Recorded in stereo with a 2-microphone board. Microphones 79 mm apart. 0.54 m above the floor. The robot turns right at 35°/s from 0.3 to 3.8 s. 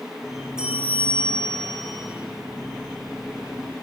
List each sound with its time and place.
0.6 s a bell: 170° right, 7 m; by 2.1 s 120° right, 7 m